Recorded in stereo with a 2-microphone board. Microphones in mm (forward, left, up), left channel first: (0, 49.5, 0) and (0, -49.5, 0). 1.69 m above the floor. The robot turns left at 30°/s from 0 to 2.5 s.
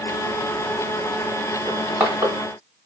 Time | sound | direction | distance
1.7 | crushing | 20° right (ahead or behind) | 1.7 m